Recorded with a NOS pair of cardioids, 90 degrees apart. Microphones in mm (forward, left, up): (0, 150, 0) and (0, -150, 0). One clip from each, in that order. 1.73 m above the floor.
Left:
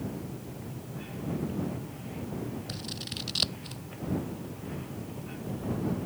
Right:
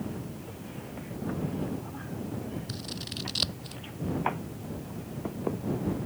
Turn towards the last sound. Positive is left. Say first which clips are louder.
# even
turn(degrees=5)